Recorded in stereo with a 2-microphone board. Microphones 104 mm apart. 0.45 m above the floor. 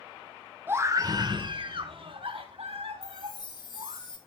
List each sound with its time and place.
0.7 s a scream: 20° right (ahead or behind), 0.9 m; by 4.0 s 70° right (ahead or behind), 4 m
3.0 s a chime: 45° left (ahead or behind), 1.8 m